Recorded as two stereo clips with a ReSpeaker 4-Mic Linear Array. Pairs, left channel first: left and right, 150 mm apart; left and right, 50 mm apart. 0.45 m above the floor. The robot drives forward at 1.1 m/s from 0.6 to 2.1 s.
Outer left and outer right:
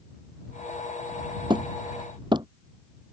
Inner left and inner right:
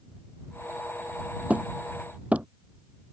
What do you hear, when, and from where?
1.5 s hammering: 35° right (ahead or behind); by 2.5 s 30° right (ahead or behind)